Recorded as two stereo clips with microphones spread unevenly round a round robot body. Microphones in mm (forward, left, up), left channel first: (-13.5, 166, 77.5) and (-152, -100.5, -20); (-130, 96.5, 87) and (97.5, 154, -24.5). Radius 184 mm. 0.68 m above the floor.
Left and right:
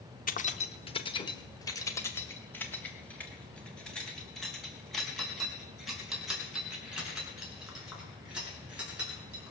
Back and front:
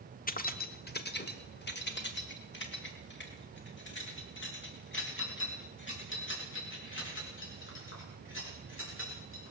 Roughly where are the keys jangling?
Behind left.